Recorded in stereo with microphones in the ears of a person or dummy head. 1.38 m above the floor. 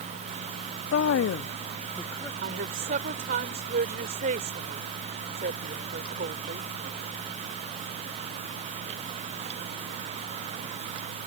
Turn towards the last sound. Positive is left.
turn(degrees=-50)  # may be behind; listen again after turning